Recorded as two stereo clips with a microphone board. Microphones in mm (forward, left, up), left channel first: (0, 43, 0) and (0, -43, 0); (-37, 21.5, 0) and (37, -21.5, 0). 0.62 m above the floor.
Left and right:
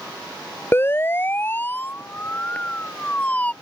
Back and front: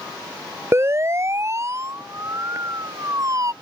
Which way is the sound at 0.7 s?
30° left.